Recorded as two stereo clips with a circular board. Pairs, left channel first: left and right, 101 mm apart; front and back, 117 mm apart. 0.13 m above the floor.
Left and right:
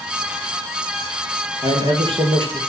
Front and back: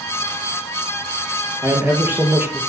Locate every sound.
1.6 s a man speaking: 110° right, 3 m